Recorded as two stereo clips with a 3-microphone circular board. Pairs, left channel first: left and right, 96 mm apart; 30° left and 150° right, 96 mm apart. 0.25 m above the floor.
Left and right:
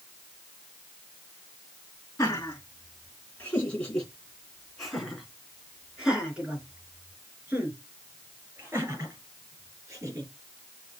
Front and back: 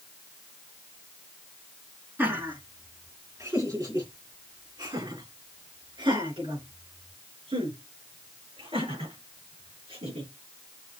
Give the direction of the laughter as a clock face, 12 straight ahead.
7 o'clock.